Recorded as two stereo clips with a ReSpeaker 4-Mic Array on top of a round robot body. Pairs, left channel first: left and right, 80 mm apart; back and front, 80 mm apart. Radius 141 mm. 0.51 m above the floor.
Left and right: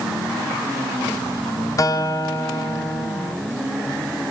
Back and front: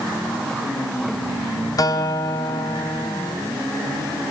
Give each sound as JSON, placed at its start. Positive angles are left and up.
{"t": 1.8, "sound": "a guitar", "azimuth_deg": 135, "distance_m": 3.0}